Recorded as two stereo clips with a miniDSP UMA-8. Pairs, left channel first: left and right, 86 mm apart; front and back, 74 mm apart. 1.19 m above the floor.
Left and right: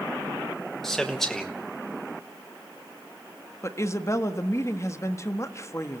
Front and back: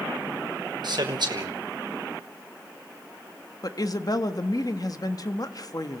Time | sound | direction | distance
0.8 | a man speaking | 175° left | 1.0 m
3.6 | a woman speaking | 35° left | 1.5 m